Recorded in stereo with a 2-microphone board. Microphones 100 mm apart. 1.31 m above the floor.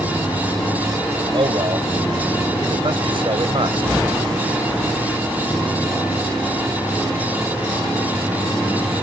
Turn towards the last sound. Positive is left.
turn(degrees=-60)  # may be behind; listen again after turning